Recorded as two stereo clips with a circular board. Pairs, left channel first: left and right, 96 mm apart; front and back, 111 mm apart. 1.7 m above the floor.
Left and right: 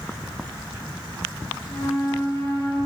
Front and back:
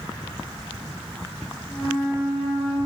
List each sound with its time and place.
1.7 s a flute: 85° left, 6 m